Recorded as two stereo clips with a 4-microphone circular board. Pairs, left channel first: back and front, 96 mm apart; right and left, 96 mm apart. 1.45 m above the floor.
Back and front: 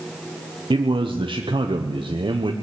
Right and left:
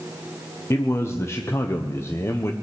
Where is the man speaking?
30° right, 0.9 m.